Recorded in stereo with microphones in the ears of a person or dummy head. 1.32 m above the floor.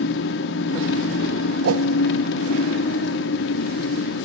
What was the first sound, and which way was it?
An engine running, 60° left (ahead or behind).